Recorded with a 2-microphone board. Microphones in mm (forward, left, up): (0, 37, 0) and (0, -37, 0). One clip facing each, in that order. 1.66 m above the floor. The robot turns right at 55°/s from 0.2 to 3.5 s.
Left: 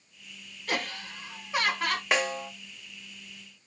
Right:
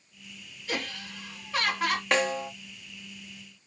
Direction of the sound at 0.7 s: 120° left.